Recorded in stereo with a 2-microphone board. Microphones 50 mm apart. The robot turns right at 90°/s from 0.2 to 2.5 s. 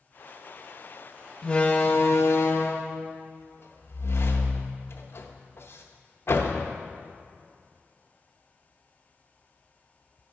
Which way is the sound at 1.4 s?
15° left (ahead or behind).